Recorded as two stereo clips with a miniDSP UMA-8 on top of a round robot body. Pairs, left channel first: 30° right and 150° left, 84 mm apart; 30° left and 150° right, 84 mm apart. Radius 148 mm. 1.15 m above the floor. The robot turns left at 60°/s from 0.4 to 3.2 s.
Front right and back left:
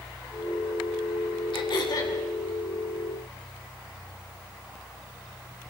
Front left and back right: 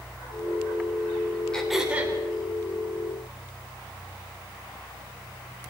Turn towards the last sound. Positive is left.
turn(degrees=-150)